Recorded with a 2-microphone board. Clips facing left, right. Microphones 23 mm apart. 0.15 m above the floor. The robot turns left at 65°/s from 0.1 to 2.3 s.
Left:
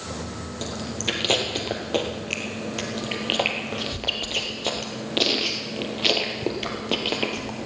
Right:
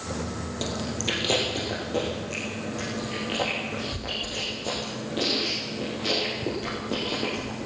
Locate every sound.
0.6 s chewing: 15° right (ahead or behind), 3 m; by 7.7 s 70° left (ahead or behind), 3 m